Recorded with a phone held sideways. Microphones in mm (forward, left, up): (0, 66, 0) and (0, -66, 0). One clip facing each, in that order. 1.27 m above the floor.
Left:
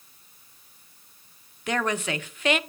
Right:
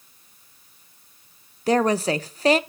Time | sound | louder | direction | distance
1.7 | a woman speaking | right 8 dB | 35° right (ahead or behind) | 0.6 m